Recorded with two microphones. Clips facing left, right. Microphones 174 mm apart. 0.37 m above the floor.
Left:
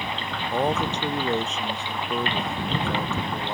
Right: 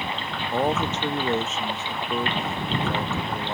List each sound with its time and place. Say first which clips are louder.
0.5 s a man speaking: even; centre (ahead or behind)